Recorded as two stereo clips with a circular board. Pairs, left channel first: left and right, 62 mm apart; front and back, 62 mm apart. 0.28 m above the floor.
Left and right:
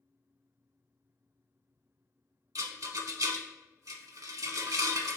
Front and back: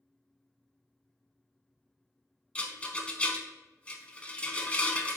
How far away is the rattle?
About 0.6 m.